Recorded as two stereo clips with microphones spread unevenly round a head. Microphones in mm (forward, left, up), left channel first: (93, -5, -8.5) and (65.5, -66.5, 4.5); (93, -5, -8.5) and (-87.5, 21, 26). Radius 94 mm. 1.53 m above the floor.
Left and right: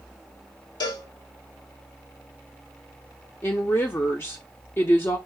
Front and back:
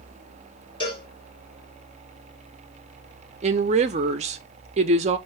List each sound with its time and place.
0.8 s a cowbell: 60° left, 1.9 m
3.4 s a woman speaking: 135° left, 0.5 m